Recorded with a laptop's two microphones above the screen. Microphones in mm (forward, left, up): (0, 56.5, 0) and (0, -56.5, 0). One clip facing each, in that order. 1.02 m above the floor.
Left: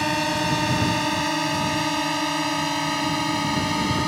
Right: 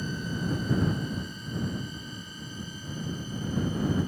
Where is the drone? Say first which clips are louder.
Left 10 dB; 80° left.